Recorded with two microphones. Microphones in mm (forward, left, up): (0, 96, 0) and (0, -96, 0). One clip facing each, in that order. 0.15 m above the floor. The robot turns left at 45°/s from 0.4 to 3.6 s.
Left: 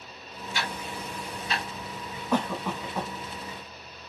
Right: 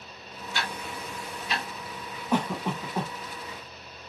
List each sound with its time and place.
0.5 s ticking: 10° left (ahead or behind), 1.4 m; by 1.6 s 5° right (ahead or behind), 1.4 m
2.3 s a cough: 20° right (ahead or behind), 1.0 m